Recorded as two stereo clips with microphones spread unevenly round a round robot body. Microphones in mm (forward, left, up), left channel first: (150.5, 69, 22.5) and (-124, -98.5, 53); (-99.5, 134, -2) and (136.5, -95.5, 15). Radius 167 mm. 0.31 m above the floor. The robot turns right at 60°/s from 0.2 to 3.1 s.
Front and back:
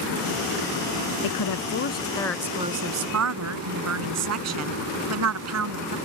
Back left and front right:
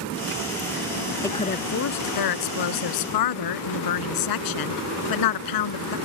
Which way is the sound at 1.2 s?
50° left.